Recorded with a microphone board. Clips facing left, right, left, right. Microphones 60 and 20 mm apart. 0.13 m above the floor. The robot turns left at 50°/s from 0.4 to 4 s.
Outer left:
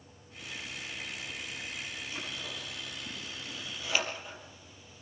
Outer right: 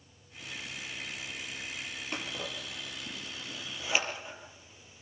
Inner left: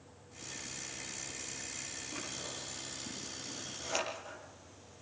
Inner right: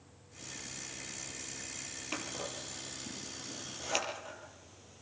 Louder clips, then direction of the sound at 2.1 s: Outer right 6 dB, inner right 5 dB; 60° right (ahead or behind).